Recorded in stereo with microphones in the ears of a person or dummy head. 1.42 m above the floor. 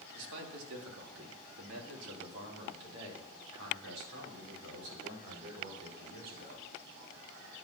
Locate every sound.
0.1 s a man speaking: 65° right (ahead or behind), 3 m